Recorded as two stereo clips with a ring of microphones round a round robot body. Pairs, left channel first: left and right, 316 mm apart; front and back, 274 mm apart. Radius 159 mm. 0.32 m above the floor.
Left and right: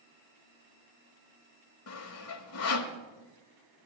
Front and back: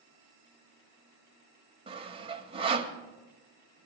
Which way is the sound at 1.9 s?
115° left.